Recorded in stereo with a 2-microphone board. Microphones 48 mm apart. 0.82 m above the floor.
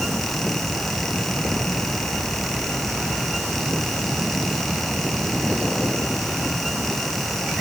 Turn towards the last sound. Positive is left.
No sound to turn to.